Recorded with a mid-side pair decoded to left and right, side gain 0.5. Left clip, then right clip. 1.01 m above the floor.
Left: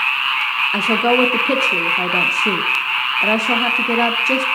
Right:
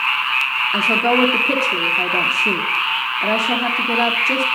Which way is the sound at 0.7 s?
15° left.